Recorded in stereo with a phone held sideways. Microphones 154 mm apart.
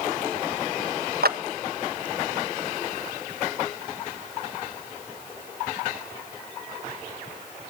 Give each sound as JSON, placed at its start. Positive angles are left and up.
{"t": 1.2, "sound": "a clap", "side_deg": -85, "distance_m": 1.1}